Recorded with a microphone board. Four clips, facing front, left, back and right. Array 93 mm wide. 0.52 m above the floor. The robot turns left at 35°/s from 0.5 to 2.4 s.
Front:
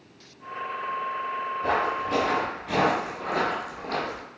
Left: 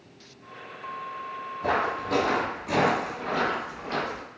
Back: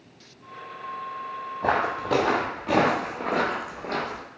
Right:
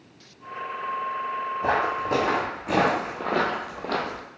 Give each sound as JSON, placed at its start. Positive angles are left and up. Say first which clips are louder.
{"t": 1.6, "sound": "footsteps", "louder": "right 1 dB, back 2 dB", "azimuth_deg": -150, "distance_m": 1.2}